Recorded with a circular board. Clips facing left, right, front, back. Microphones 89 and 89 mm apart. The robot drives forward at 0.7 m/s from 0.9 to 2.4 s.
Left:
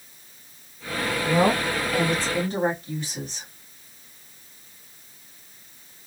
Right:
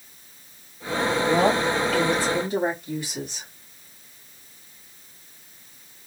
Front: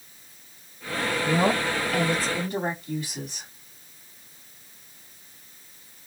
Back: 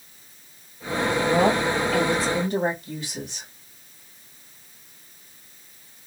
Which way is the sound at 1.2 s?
170° right.